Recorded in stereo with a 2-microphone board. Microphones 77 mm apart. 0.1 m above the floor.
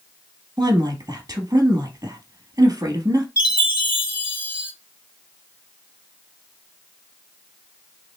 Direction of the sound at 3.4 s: 20° right (ahead or behind).